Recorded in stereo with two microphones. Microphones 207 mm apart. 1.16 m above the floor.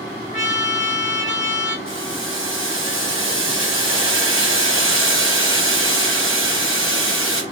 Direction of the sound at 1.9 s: 75° right (ahead or behind).